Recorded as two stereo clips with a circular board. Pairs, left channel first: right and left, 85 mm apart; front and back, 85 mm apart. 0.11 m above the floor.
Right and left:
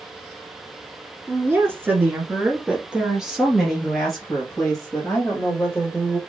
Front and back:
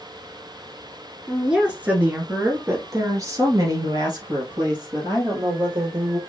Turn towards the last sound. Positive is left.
turn(degrees=-170)